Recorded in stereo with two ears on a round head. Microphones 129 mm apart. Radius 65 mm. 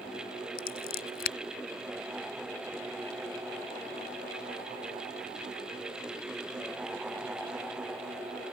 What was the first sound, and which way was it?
Scissors, 80° left.